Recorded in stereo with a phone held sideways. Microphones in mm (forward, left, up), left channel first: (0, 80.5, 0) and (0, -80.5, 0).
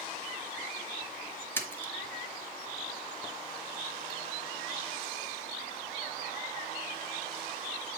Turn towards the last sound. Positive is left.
turn(degrees=15)  # may be behind; listen again after turning